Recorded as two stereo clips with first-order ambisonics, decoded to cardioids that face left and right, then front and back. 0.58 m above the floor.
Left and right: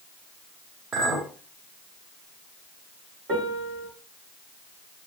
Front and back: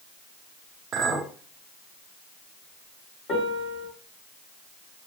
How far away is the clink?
About 1.1 m.